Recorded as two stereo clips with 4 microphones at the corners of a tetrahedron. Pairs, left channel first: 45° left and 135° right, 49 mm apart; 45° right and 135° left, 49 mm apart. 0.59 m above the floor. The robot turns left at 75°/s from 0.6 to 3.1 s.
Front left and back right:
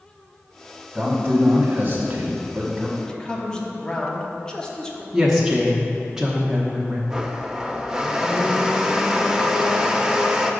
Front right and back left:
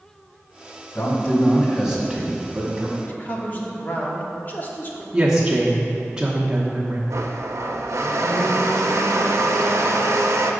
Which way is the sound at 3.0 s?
15° right.